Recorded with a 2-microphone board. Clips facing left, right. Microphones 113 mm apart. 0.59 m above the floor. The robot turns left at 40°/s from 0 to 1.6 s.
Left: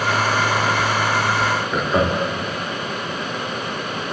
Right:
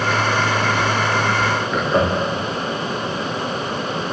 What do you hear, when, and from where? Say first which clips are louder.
1.7 s laughter: right 2 dB; 5° left (ahead or behind), 0.7 m